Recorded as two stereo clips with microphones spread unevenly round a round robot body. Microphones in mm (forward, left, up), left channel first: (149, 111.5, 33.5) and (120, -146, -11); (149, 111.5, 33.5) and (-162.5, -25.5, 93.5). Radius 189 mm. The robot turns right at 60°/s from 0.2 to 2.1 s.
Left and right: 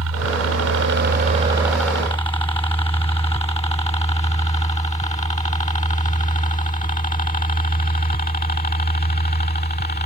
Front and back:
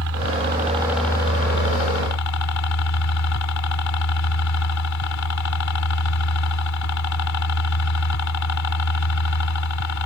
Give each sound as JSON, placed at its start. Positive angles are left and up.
{"t": 0.0, "sound": "a helicopter", "azimuth_deg": -110}